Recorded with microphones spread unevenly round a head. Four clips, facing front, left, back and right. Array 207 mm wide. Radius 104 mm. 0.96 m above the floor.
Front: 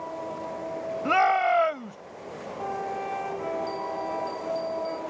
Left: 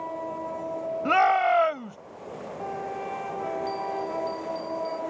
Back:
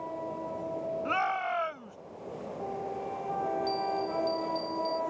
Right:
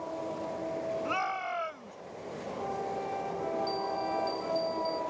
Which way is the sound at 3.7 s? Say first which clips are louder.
Left 2 dB, even; 135° left.